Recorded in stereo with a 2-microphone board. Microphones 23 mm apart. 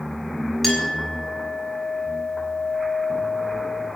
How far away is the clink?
About 5 m.